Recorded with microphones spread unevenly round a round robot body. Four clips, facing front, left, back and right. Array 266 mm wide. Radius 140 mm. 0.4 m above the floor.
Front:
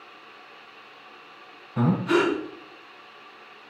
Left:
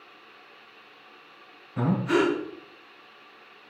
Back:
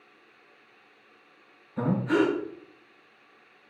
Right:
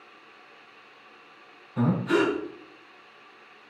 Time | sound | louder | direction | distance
1.8 | breathing | even, front 2 dB | 5° left | 3.5 m